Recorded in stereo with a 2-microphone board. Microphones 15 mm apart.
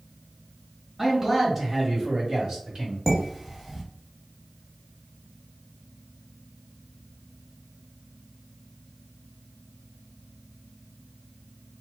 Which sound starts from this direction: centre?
Dishes clattering, at 3.1 s.